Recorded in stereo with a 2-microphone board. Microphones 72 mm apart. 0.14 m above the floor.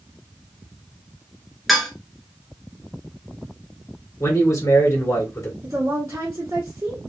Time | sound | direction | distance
1.7 | dishes clattering | centre (ahead or behind) | 1.1 m
4.2 | a man speaking | 45° left (ahead or behind) | 1.9 m
5.6 | a woman speaking | 30° right (ahead or behind) | 1.4 m